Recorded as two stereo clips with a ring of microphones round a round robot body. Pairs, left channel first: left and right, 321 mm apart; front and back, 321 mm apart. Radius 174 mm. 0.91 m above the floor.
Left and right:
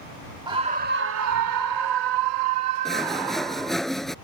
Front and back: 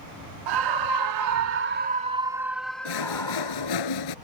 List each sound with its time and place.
0.5 s a scream: 170° right; by 3.8 s 75° right
2.9 s sawing: straight ahead